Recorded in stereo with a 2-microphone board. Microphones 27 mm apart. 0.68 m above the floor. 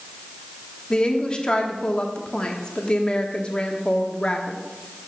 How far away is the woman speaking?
About 1.4 m.